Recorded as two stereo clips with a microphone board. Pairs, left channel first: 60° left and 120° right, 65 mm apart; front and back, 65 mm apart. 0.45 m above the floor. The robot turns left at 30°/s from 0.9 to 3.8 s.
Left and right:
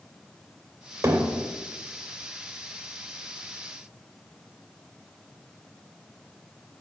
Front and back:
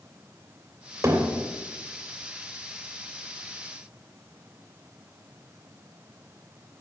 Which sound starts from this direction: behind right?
Hammering, at 1.0 s.